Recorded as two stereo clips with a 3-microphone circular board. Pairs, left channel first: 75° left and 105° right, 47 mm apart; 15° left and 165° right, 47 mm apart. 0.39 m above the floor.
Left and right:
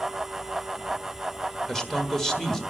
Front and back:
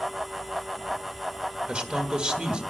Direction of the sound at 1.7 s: 150° left.